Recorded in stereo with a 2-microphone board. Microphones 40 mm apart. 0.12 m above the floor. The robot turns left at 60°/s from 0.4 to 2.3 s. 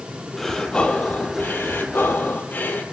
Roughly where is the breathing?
Behind.